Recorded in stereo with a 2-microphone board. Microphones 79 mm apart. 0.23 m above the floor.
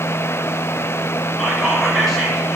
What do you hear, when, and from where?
1.4 s whispering: centre (ahead or behind), 3.5 m